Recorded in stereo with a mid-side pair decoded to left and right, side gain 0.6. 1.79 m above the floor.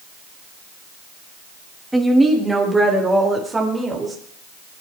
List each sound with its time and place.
1.9 s a woman speaking: 5° right, 6 m; by 4.2 s 25° right, 8.5 m